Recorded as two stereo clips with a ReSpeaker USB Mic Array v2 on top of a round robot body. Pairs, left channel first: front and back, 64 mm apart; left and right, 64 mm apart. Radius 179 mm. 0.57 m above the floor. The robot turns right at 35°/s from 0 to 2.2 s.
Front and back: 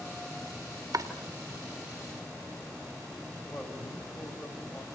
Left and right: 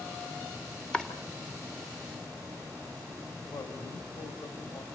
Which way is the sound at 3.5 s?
95° left.